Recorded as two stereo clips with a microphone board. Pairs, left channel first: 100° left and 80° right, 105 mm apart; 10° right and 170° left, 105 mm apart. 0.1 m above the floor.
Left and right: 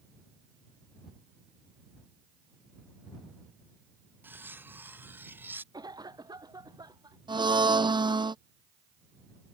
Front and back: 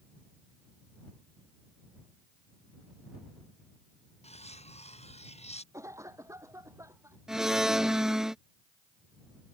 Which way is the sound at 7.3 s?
105° right.